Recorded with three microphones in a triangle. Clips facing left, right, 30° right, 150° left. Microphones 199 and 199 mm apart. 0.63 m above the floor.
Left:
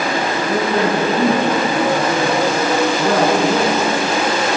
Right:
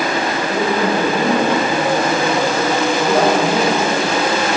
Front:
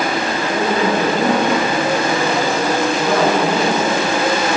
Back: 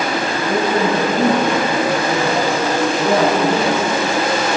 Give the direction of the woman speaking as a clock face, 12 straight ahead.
8 o'clock.